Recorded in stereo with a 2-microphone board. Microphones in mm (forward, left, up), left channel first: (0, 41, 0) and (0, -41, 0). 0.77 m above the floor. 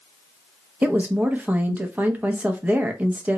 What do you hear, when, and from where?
0.8 s a woman speaking: 20° right (ahead or behind), 0.6 m